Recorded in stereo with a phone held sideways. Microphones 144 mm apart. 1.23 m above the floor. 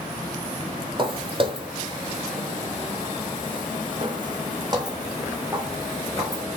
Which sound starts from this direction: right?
Footsteps, at 1.0 s.